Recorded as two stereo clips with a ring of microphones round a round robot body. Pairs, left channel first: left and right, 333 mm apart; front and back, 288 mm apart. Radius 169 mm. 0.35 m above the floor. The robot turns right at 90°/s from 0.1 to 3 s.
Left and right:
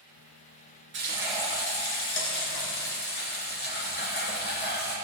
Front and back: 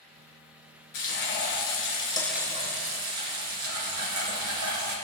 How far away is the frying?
About 3 m.